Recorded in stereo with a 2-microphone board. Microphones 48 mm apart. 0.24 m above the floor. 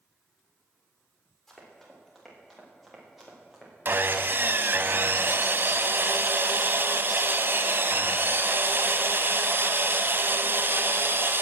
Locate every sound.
1.5 s running footsteps: 5° left (ahead or behind), 5.5 m; by 3.7 s 10° right (ahead or behind), 5 m
3.9 s sawing: 45° right (ahead or behind), 0.7 m